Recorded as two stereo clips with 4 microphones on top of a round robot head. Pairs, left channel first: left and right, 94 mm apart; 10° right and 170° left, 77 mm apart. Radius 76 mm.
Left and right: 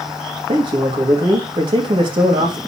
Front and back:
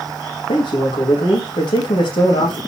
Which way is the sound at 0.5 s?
45° right.